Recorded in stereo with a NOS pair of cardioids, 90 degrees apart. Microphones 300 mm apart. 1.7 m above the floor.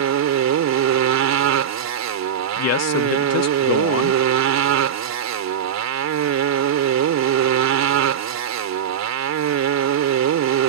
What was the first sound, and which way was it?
A motorcycle, 65° right.